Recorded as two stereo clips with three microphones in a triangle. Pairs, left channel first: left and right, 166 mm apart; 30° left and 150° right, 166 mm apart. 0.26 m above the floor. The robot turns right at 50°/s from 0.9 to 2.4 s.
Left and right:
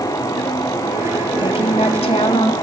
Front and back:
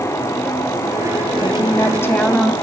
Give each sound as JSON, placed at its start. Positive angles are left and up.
{"t": 1.4, "sound": "a woman speaking", "azimuth_deg": 65, "distance_m": 1.5}